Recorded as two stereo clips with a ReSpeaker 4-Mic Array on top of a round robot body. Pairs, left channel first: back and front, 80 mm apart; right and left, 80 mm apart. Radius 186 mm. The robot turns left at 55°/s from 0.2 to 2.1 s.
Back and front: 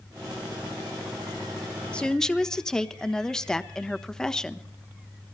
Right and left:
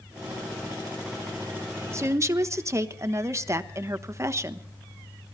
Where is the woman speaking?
115° left, 1.2 m; by 4.7 s 105° left, 1.2 m.